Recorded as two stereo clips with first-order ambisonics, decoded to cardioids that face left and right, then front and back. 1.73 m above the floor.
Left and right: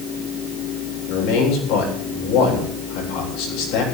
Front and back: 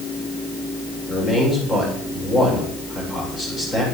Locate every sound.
1.1 s a man speaking: 70° left, 8.5 m